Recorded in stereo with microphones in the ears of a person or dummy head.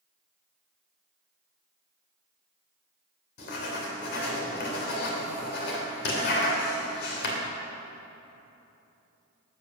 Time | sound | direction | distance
3.4 | writing | 60° left (ahead or behind) | 3 m